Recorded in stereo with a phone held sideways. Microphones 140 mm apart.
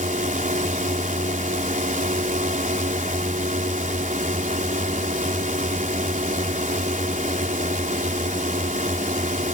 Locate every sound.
0.0 s a drone: 65° right (ahead or behind)